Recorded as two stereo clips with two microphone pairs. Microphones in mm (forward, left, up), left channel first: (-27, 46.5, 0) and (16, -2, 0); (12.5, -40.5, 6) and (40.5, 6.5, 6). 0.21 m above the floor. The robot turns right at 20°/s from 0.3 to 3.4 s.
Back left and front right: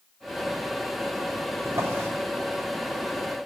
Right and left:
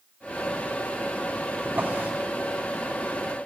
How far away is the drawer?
About 4 m.